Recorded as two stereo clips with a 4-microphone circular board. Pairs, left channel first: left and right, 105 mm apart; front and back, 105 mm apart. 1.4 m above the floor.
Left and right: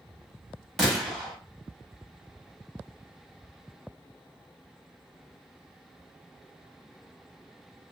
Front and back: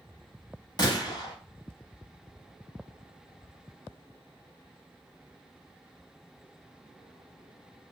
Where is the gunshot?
5° left, 0.8 m.